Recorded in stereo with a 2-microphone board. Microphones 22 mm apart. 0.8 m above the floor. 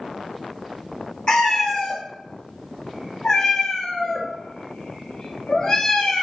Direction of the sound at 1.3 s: 40° left (ahead or behind).